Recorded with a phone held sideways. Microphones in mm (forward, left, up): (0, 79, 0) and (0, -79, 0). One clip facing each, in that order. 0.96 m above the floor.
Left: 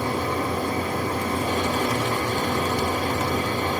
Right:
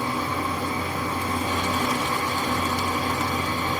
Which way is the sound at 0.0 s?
45° left (ahead or behind).